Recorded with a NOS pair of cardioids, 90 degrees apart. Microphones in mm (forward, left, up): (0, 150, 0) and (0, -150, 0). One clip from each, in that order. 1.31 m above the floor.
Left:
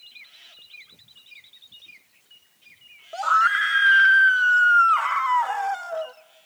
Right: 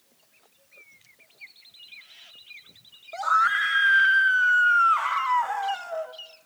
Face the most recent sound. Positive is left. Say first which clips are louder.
# left 2 dB
turn(degrees=10)